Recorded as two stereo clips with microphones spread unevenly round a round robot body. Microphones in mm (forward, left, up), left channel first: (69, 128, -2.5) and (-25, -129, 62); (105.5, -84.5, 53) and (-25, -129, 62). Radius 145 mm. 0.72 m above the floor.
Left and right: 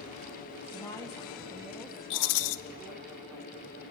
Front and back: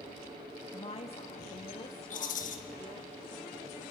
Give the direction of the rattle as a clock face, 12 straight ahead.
10 o'clock.